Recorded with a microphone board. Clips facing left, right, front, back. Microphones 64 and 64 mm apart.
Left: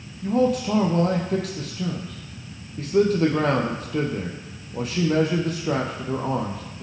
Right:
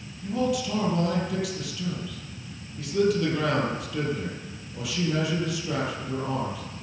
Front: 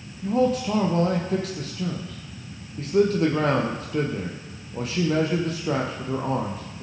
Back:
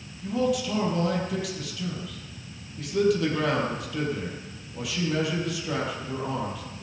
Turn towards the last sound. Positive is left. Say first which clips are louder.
# left 6 dB, front 4 dB
turn(degrees=50)